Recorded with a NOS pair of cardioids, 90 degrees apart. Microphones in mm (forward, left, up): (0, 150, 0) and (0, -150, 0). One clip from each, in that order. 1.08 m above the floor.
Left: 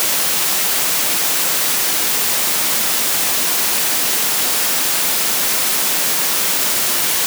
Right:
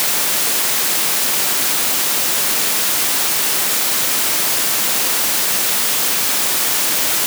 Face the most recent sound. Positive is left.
No sound to turn to.